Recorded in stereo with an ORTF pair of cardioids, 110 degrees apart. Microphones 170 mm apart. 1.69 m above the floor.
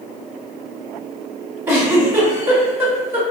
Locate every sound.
1.7 s a giggle: 15° right, 1.3 m